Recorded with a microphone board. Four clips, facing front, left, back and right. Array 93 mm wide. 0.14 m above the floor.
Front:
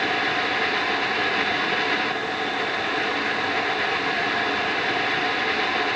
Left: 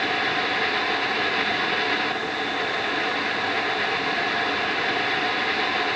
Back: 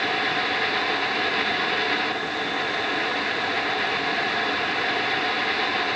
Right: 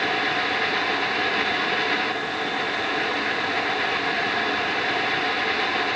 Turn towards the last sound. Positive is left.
No sound to turn to.